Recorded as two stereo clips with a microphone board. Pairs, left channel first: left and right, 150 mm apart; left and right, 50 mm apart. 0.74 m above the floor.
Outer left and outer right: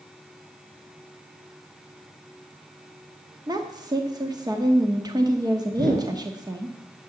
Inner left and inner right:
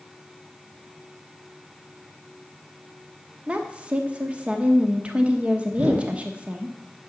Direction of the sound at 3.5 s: 25° right (ahead or behind).